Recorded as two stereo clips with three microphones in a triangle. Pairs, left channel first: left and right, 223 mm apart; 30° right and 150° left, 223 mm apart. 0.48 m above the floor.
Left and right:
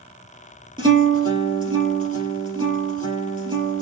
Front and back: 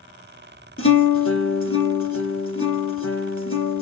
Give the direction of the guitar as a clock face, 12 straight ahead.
1 o'clock.